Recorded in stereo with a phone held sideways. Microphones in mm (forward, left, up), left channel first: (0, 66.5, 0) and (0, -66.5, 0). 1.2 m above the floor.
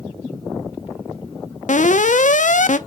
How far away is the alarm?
About 0.7 m.